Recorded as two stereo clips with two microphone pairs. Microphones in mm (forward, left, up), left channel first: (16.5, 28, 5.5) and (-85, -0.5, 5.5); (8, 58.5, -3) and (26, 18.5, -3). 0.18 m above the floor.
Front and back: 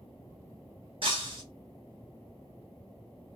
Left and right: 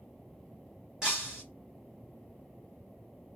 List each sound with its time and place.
1.0 s breaking glass: 140° right, 1.6 m